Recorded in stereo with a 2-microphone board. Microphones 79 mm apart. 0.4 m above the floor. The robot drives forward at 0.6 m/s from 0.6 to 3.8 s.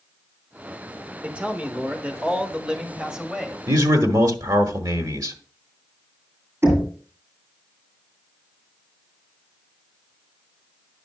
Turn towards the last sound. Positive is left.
turn(degrees=-35)  # may be behind; listen again after turning